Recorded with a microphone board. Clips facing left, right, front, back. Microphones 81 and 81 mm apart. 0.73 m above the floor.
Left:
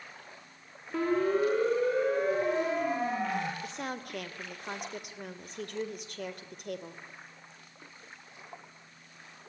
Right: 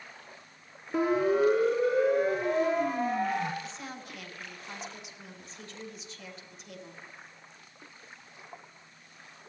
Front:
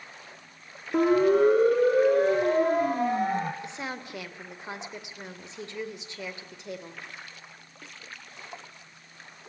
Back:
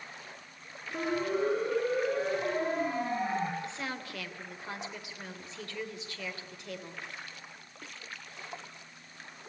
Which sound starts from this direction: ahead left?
A woman speaking, at 3.6 s.